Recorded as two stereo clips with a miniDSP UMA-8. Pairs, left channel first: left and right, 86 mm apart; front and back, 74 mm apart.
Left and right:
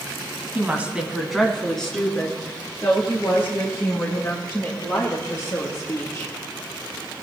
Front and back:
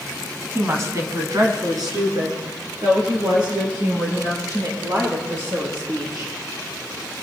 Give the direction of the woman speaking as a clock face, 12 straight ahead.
5 o'clock.